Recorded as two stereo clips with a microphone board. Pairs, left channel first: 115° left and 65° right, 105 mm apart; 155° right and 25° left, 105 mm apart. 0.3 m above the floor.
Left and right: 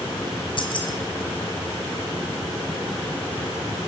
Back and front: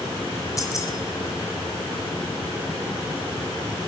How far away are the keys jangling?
About 1.5 m.